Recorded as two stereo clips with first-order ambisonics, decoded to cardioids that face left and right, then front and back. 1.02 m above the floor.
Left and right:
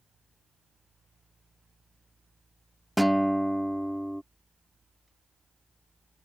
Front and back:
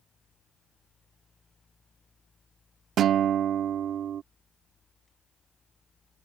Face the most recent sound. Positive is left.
turn(degrees=180)